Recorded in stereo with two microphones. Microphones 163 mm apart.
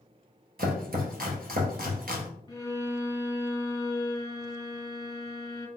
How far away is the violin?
About 1.0 m.